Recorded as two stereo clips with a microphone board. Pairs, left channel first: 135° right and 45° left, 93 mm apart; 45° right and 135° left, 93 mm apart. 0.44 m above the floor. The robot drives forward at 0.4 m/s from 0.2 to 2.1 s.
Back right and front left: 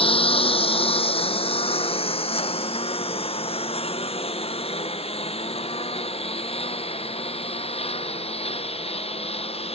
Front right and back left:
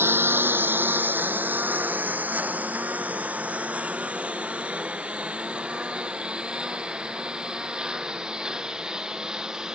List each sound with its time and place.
0.0 s a lawn mower: 155° right; by 9.8 s 140° right